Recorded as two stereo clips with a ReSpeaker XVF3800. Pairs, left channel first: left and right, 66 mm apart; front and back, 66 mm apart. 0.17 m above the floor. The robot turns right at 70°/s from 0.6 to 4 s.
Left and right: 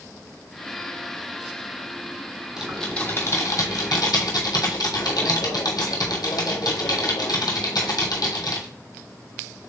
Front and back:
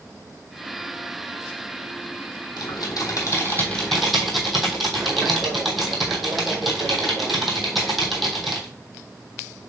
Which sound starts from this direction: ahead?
Typing on a keyboard, at 2.6 s.